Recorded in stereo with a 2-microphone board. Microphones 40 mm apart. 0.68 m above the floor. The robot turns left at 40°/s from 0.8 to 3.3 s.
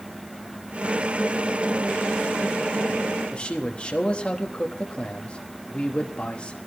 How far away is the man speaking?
About 1.0 m.